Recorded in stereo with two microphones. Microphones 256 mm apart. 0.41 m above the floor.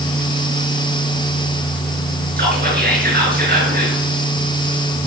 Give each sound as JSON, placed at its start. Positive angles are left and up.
{"t": 2.4, "sound": "whispering", "side_deg": -40, "distance_m": 5.5}